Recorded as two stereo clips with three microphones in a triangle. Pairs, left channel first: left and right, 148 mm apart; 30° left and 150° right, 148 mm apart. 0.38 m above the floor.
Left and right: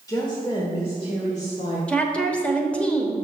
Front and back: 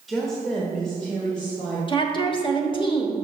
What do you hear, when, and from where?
0.1 s a woman speaking: 120° left, 1.1 m; by 1.8 s 110° left, 1.8 m
1.9 s a woman speaking: 15° left, 1.0 m